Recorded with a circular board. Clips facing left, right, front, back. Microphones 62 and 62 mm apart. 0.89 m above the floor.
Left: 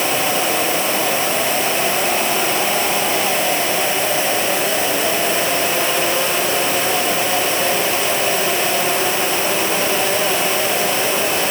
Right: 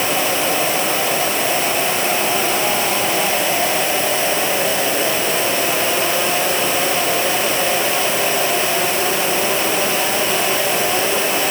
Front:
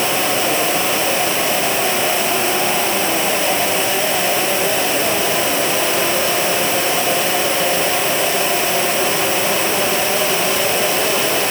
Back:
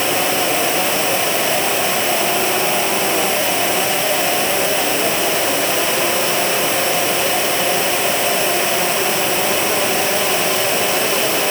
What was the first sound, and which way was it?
Only background noise.